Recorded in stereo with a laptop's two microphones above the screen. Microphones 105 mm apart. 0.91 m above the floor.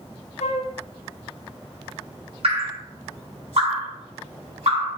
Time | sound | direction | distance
0.4 | a flute | 80° left | 0.9 m
2.4 | dripping | 60° right (ahead or behind) | 4 m